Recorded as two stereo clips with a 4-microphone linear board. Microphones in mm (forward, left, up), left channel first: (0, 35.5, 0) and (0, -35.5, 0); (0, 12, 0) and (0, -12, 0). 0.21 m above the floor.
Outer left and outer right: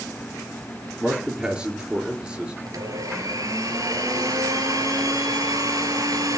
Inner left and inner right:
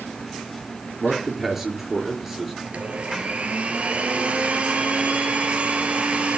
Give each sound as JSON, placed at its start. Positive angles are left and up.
{"t": 1.0, "sound": "a man speaking", "side_deg": -15, "distance_m": 4.0}
{"t": 2.6, "sound": "a blender", "side_deg": -55, "distance_m": 2.5}